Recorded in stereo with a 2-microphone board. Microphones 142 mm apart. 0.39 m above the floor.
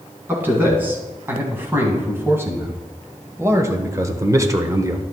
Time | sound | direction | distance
0.3 | a man speaking | 15° right (ahead or behind) | 3 m